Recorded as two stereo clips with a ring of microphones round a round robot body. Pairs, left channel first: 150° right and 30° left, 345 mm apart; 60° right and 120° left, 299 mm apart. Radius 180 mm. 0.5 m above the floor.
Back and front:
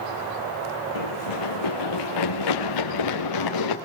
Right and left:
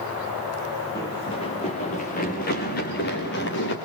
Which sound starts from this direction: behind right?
Running footsteps, at 0.9 s.